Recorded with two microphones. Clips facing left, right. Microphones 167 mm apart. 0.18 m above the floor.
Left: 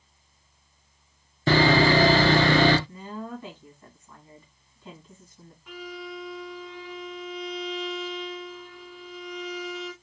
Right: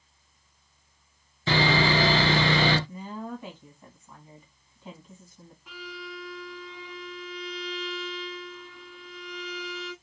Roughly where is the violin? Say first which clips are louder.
Left 4 dB; centre.